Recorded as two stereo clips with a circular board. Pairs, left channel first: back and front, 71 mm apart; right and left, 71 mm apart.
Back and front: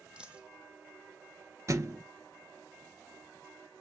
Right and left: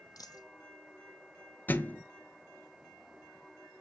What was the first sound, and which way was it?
A dropped coin, 75° right.